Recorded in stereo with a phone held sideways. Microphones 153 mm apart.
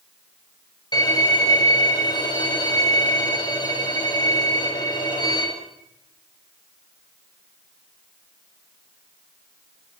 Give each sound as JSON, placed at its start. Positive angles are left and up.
{"t": 0.9, "sound": "a violin", "side_deg": 25, "distance_m": 7.0}